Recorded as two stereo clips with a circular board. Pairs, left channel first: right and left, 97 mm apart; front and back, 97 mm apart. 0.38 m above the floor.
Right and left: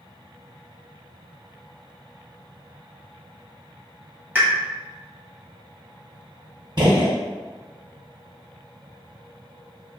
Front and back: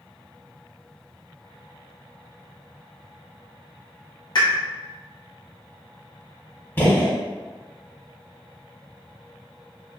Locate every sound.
4.3 s a pop: 30° left, 1.4 m
6.8 s a gunshot: 65° left, 0.8 m